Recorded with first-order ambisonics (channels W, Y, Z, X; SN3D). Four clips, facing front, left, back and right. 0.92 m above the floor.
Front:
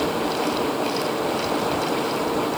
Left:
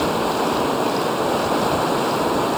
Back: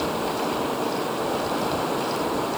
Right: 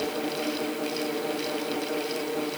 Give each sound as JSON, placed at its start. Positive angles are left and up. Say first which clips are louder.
{"t": 0.0, "sound": "running water", "louder": "left 9 dB, front 2 dB", "azimuth_deg": 85}